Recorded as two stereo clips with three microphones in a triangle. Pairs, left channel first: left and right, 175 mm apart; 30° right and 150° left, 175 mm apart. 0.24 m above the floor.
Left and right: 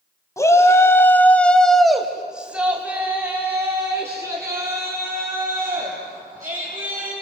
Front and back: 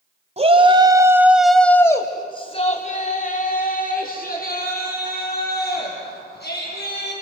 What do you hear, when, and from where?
0.4 s a shout: 150° left, 2.0 m; by 7.1 s 20° right, 6.5 m